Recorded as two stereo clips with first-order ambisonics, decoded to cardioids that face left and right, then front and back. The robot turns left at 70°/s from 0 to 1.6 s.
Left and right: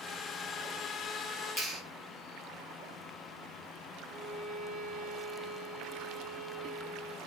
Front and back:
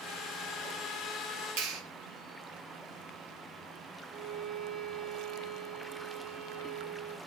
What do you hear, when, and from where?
1.6 s a clap: 160° right, 1.6 m
4.1 s a violin: 115° right, 3 m